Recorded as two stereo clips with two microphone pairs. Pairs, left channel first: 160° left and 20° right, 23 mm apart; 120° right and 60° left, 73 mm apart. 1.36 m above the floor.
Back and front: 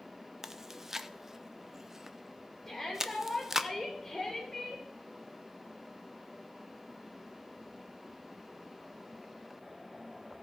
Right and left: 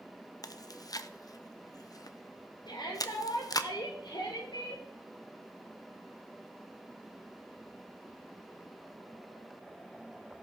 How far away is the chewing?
About 0.6 m.